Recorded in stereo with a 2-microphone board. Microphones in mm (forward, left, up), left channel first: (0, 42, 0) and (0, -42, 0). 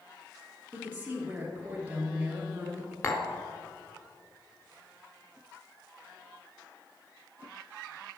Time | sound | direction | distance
0.7 | a woman speaking | 20° right (ahead or behind) | 2.5 m
3.0 | tapping | 35° left (ahead or behind) | 1.0 m